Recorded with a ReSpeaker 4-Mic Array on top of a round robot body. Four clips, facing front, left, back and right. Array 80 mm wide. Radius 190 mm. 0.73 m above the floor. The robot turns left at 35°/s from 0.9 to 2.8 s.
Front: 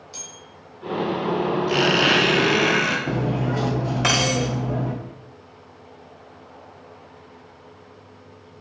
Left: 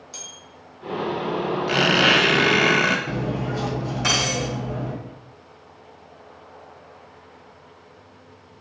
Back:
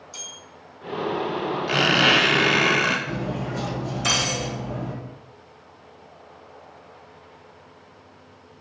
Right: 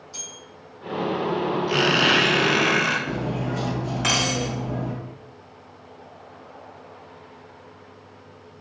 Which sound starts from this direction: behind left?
A squeak, at 1.7 s.